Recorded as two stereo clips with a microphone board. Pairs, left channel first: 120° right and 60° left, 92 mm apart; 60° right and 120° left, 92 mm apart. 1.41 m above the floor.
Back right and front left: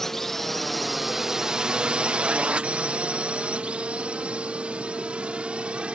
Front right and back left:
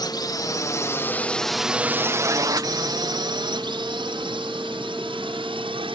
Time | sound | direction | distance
0.0 | a drone | 35° right | ?